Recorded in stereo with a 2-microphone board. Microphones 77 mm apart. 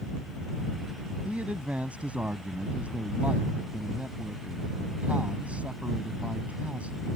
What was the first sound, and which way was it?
A man speaking, 20° right (ahead or behind).